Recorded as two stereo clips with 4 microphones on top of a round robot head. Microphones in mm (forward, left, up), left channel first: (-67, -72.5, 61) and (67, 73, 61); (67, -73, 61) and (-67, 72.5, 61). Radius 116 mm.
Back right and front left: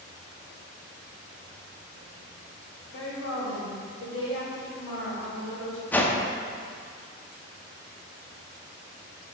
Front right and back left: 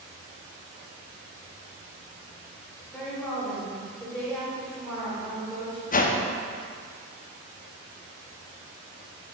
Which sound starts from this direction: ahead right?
A whoosh, at 5.9 s.